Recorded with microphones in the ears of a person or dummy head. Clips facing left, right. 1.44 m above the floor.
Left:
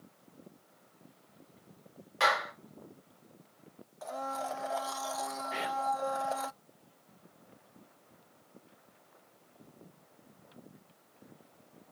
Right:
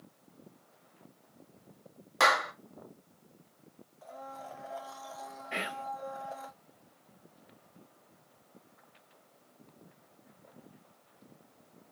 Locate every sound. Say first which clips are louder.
2.2 s a clap: right 2 dB; 50° right (ahead or behind), 2.5 m
4.0 s a blender: left 8 dB; 70° left (ahead or behind), 0.6 m
5.5 s whispering: left 2 dB; 30° right (ahead or behind), 1.4 m